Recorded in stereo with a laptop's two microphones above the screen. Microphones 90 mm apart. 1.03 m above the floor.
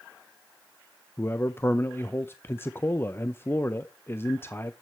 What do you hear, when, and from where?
1.2 s a man speaking: 25° left (ahead or behind), 0.5 m